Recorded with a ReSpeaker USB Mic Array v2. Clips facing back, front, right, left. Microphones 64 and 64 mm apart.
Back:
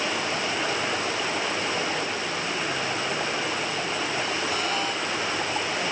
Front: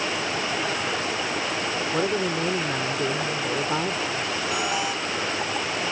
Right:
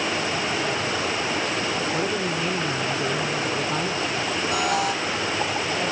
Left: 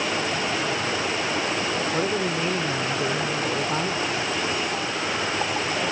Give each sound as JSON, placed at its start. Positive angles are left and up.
{"t": 1.9, "sound": "a woman speaking", "azimuth_deg": 15}
{"t": 4.5, "sound": "an alarm", "azimuth_deg": -80}